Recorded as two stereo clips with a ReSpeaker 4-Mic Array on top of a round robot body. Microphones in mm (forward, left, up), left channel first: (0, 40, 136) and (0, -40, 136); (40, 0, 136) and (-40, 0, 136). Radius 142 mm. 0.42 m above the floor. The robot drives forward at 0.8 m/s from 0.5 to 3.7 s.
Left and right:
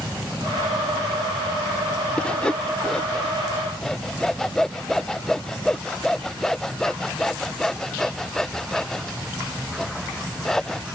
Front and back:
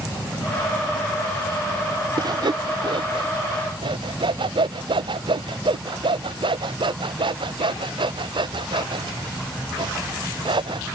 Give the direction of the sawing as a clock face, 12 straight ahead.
6 o'clock.